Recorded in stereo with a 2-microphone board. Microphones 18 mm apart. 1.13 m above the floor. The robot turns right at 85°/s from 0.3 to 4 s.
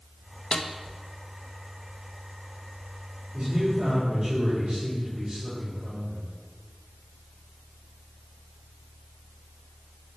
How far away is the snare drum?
About 0.6 m.